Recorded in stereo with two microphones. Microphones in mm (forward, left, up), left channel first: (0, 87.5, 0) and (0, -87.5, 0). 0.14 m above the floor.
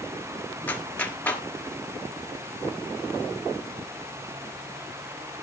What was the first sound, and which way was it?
A clap, 10° left (ahead or behind).